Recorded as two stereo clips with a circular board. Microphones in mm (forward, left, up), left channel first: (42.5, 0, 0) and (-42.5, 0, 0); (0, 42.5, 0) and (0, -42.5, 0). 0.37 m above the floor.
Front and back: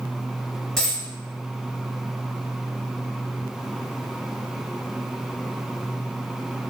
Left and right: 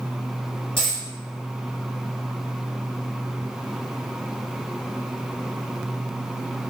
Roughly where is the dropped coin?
Left.